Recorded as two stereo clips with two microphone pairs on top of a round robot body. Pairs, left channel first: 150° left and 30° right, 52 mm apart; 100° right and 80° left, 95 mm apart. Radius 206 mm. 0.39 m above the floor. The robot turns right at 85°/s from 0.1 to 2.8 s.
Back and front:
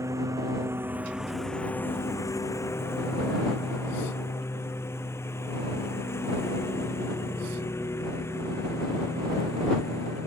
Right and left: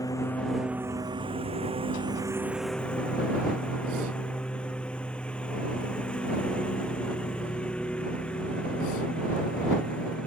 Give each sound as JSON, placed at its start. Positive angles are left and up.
{"t": 0.0, "sound": "a lawn mower", "azimuth_deg": -45}